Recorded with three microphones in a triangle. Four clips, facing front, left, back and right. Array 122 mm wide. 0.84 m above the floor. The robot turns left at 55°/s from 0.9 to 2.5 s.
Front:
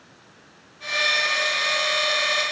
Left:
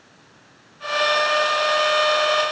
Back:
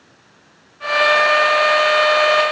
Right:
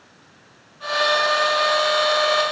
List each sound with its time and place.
Only background noise.